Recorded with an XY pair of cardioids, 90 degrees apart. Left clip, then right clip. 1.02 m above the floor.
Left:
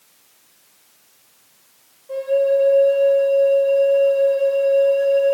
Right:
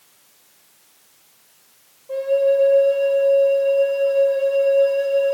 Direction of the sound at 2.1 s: 10° right.